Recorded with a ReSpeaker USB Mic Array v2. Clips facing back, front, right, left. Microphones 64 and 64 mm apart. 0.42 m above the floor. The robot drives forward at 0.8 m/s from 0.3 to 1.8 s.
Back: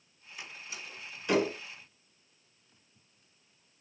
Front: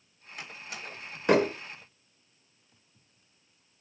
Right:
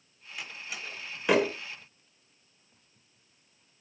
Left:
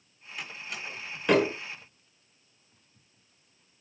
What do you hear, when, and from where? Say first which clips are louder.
0.4 s a door slam: front 3 dB, left 1 dB; 5° right, 2.0 m